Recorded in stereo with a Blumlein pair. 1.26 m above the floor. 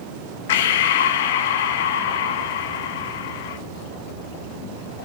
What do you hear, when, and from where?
0.5 s breathing: 55° left, 0.9 m